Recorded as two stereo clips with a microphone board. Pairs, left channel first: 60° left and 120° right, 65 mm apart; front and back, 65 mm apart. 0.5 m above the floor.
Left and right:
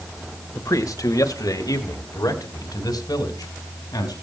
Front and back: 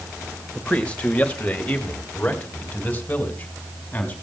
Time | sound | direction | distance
0.6 | a man speaking | 70° left | 1.7 m